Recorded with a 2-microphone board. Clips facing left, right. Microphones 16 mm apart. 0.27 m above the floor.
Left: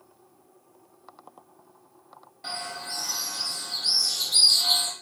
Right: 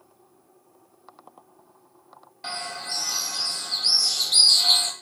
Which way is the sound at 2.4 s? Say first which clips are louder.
Right 2 dB; 35° right (ahead or behind).